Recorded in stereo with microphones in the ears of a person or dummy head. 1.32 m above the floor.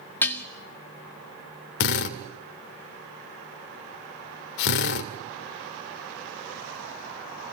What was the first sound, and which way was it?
Dishes clattering, 15° left (ahead or behind).